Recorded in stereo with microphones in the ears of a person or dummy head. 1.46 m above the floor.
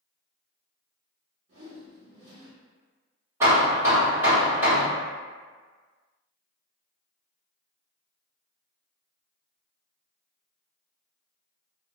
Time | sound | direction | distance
1.5 | a whoosh | 35° right (ahead or behind) | 1.3 m
3.4 | hammering | 20° right (ahead or behind) | 1.3 m